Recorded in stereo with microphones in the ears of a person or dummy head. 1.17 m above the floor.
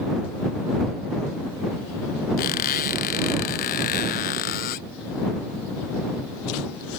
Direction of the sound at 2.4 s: 50° left (ahead or behind).